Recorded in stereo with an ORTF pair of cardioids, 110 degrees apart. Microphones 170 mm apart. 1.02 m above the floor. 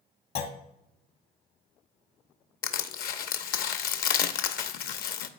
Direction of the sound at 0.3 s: 65° left.